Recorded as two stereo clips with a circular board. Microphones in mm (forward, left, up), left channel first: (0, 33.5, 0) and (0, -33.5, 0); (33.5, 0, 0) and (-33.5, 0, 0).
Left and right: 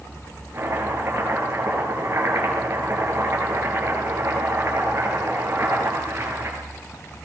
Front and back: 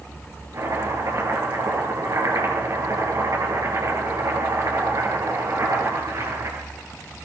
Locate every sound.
0.5 s chopping: 145° right, 9 m